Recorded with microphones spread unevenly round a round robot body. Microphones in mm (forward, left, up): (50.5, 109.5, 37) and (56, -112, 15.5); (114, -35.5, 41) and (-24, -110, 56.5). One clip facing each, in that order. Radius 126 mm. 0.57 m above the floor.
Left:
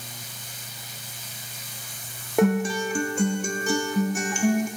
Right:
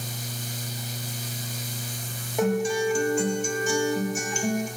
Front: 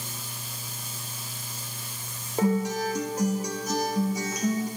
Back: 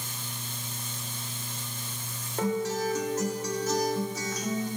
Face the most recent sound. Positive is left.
turn(degrees=100)